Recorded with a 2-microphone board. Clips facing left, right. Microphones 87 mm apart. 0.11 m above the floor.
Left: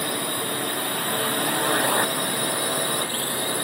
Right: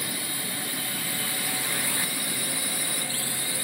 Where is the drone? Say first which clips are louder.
Left 8 dB; 55° left (ahead or behind); by 3.6 s 50° left (ahead or behind).